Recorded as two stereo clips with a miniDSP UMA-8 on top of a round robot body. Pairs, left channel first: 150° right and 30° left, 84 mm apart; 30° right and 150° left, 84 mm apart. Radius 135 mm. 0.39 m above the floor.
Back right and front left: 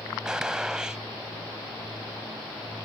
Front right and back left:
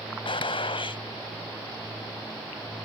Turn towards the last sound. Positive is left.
turn(degrees=-55)